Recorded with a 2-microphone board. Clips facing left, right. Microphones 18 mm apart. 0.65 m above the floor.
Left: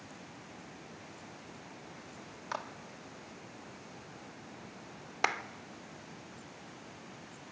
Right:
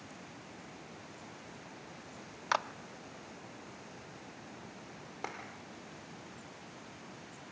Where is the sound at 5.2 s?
70° left (ahead or behind), 1.2 m.